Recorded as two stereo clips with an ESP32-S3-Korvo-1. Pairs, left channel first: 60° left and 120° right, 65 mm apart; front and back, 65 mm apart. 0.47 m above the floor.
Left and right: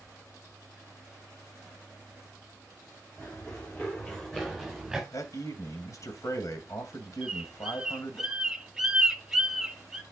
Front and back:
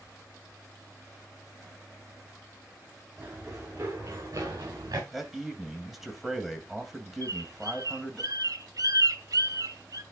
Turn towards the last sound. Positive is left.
turn(degrees=160)